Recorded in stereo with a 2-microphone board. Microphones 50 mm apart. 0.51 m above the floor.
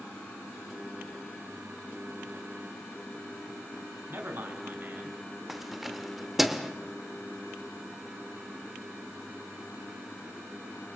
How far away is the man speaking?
About 4.5 m.